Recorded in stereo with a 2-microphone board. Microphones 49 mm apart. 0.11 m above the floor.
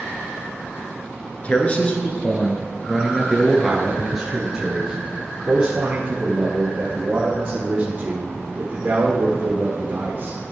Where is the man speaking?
30° left (ahead or behind), 1.5 m; by 10.4 s 35° right (ahead or behind), 4.5 m.